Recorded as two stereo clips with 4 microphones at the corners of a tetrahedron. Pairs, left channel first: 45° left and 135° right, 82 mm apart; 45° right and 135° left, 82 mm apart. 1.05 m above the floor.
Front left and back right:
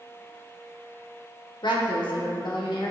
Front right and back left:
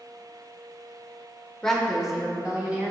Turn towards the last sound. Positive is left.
turn(degrees=65)